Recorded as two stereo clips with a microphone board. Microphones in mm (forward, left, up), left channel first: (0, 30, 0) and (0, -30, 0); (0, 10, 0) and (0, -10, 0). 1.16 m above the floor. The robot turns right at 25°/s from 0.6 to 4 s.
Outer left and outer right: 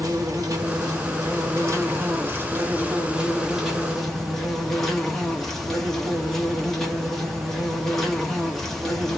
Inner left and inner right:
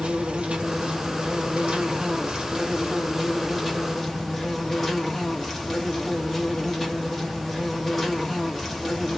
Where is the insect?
80° right, 1.2 m; by 9.2 s 5° left, 1.2 m.